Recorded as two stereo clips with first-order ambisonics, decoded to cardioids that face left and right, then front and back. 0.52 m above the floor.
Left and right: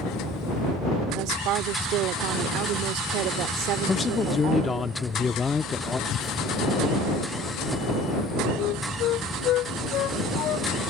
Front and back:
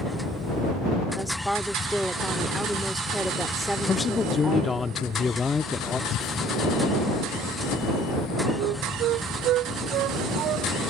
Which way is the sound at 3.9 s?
45° left.